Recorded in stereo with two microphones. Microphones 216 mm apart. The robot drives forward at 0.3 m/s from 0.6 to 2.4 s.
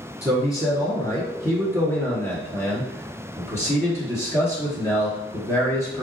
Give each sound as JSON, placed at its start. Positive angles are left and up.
{"t": 0.2, "sound": "a man speaking", "side_deg": 15, "distance_m": 1.3}